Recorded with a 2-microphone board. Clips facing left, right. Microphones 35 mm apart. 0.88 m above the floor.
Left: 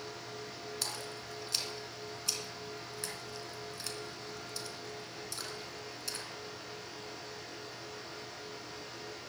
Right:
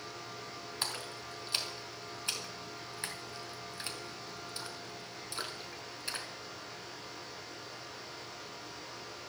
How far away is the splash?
About 2.5 m.